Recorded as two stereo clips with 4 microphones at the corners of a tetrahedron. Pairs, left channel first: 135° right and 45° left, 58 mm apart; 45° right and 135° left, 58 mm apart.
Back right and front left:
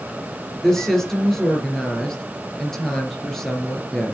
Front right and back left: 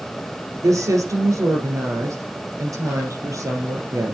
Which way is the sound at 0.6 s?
140° left.